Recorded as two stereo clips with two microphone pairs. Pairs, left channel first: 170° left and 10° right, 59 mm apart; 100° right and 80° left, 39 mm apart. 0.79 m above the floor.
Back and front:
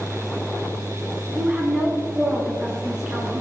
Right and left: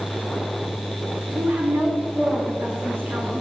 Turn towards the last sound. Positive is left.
turn(degrees=75)